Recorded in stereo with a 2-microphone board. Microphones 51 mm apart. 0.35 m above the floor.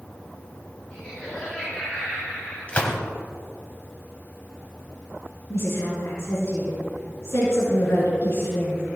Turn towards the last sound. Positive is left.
turn(degrees=60)  # may be behind; listen again after turning